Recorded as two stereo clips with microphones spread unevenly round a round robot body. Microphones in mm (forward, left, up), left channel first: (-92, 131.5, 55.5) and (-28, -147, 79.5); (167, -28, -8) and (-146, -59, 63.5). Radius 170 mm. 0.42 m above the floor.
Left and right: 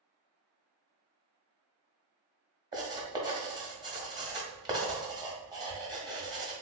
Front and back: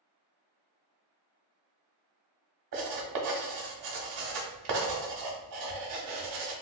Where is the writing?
155° right, 1.2 m.